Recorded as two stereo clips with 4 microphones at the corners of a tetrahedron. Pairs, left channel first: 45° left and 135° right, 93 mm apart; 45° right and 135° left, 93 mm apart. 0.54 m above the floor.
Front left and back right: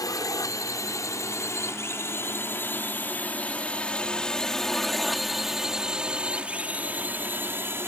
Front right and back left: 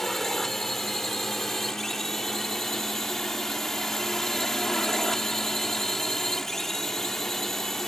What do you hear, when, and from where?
0.0 s a drone: 40° left; by 7.9 s 130° right